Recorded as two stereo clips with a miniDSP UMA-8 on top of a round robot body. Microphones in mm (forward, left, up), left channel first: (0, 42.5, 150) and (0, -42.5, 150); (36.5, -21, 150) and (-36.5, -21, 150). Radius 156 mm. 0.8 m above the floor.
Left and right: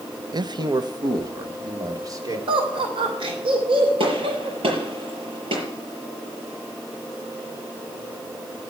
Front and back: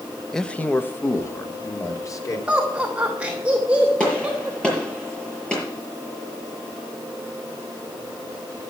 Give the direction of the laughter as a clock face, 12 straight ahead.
3 o'clock.